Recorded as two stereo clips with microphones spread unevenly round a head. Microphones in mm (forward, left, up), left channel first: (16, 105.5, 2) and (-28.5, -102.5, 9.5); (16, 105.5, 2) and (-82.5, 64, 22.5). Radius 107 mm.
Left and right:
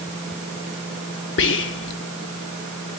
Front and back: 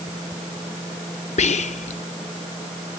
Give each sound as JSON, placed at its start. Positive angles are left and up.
{"t": 1.4, "sound": "whispering", "azimuth_deg": 40, "distance_m": 0.6}